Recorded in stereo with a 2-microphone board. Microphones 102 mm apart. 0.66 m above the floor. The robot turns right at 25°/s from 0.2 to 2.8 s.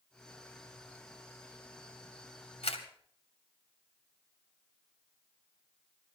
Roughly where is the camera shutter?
Left.